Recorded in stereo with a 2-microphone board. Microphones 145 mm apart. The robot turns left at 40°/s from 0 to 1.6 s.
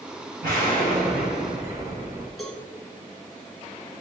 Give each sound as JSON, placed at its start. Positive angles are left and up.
{"t": 0.4, "sound": "an explosion", "azimuth_deg": -80, "distance_m": 2.5}
{"t": 2.4, "sound": "a cowbell", "side_deg": 0, "distance_m": 1.8}